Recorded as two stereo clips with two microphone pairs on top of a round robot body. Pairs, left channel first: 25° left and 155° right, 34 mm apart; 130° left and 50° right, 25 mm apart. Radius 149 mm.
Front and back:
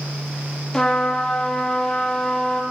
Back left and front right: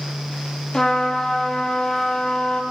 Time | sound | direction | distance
0.7 | a trumpet | 90° left | 1.4 m